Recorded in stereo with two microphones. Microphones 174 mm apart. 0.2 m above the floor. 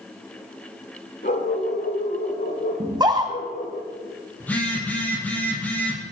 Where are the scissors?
No scissors in this recording.